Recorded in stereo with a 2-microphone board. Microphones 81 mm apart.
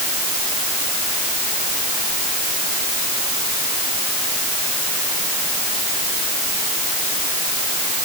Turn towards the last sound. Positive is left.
No sound to turn to.